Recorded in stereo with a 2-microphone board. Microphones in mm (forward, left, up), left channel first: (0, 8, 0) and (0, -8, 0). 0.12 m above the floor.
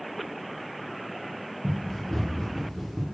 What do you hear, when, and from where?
1.6 s running footsteps: 50° left (ahead or behind), 2.5 m; by 3.0 s 10° left (ahead or behind), 2 m